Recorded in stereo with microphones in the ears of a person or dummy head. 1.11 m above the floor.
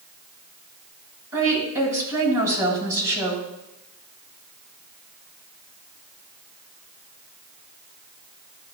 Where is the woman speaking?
20° right (ahead or behind), 6 m.